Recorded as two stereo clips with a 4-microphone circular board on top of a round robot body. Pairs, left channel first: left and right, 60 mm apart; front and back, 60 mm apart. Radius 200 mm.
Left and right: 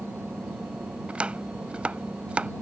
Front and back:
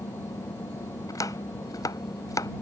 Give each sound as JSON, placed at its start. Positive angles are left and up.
{"t": 0.0, "sound": "an engine running", "azimuth_deg": -20}
{"t": 1.1, "sound": "chopping", "azimuth_deg": -20}